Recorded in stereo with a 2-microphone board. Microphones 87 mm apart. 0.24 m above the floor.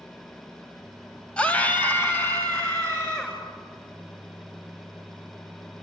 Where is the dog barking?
No dog barking in this recording.